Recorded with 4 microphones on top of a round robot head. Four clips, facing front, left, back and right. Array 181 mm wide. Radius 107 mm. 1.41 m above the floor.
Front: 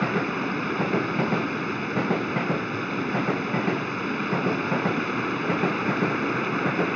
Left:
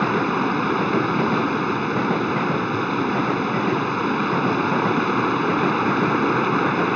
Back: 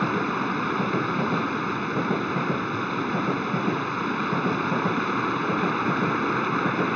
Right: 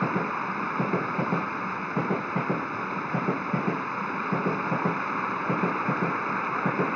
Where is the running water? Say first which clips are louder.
Left 7 dB, back 1 dB; 90° left.